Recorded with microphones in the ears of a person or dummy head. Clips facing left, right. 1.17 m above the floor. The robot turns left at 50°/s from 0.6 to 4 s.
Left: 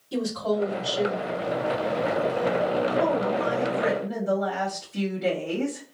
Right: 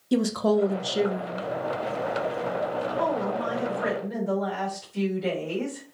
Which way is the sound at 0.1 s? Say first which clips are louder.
Right 4 dB; 95° right.